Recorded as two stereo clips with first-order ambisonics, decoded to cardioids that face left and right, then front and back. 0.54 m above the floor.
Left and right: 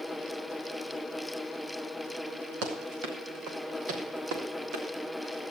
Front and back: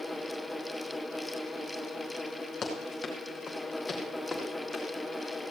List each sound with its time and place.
2.6 s running footsteps: 65° right, 4.5 m; by 4.8 s 90° right, 5 m